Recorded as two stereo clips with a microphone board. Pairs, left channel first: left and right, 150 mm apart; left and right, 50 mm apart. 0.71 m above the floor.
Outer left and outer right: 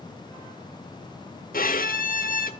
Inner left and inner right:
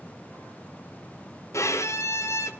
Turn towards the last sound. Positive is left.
turn(degrees=70)  # may be behind; listen again after turning